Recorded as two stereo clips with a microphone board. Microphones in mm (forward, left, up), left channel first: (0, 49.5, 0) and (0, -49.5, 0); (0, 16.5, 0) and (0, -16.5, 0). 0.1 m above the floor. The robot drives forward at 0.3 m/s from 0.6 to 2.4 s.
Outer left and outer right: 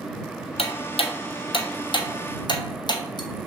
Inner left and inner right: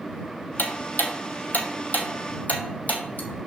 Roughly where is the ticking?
Left.